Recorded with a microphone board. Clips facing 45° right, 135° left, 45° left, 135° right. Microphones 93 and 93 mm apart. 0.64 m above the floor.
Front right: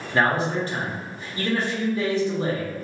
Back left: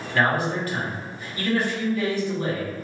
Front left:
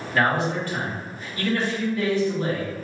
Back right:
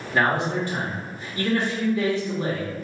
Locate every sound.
0.1 s a man speaking: 85° right, 1.0 m